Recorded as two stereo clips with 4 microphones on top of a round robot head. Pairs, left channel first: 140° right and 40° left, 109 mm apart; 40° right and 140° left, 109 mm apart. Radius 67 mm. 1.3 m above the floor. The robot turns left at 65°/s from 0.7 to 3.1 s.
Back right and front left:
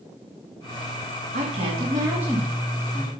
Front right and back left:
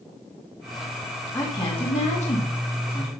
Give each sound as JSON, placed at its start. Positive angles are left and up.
{"t": 1.3, "sound": "a woman speaking", "azimuth_deg": 25, "distance_m": 2.5}